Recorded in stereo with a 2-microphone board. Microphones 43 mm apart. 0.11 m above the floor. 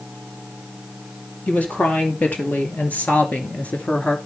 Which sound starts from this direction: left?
A woman speaking, at 1.5 s.